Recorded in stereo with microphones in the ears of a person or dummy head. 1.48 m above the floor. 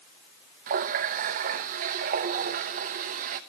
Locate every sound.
0.7 s a running tap: 45° right (ahead or behind), 0.8 m